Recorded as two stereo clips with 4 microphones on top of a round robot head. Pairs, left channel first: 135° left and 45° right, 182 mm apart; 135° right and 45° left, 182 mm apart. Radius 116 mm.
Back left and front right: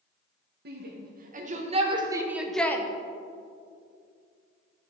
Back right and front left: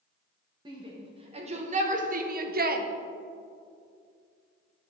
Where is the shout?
20° right, 1.6 m; by 2.9 s 65° left, 0.9 m.